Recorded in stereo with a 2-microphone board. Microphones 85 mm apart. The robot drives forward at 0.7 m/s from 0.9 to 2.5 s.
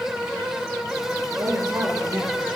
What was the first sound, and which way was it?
A woman speaking, 55° right (ahead or behind).